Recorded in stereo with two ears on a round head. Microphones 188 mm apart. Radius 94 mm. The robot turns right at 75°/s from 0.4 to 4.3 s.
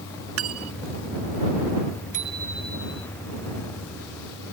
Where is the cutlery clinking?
75° right (ahead or behind); by 0.9 s 70° right (ahead or behind).